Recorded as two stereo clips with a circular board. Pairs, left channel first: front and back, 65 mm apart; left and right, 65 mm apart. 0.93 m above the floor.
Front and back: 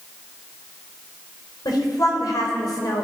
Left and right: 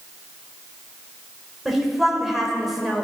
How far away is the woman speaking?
About 3.5 m.